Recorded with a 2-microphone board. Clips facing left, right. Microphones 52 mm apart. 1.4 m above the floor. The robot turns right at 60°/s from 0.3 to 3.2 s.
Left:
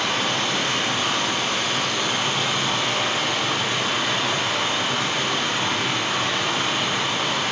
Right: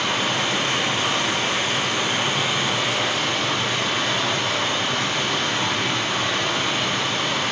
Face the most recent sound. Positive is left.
turn(degrees=15)